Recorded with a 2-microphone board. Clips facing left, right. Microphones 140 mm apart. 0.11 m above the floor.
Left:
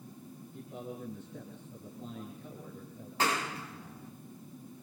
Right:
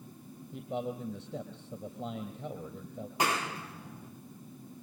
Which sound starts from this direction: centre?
A clap, at 3.2 s.